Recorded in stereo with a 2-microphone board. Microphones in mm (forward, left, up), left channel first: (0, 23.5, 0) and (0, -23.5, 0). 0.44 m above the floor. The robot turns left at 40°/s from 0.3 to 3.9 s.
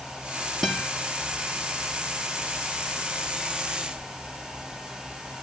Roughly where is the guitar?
Centre.